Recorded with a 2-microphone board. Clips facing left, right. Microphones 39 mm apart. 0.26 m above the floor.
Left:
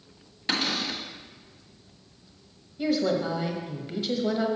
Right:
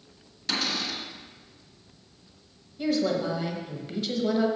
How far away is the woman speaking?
About 1.1 m.